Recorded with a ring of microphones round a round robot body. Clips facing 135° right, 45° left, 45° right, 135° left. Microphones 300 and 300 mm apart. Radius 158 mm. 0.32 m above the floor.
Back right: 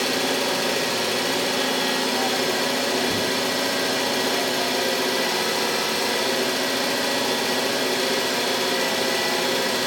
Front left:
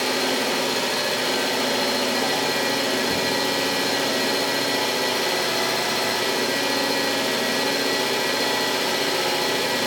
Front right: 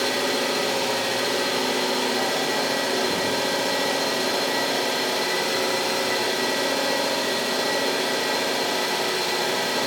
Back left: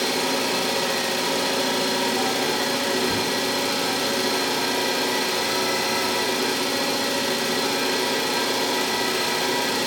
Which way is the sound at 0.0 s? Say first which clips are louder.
Even, even; 125° left.